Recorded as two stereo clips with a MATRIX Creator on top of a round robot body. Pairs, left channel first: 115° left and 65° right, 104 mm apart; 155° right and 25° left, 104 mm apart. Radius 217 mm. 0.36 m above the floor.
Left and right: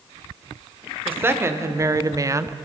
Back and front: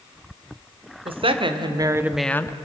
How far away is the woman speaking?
About 2 m.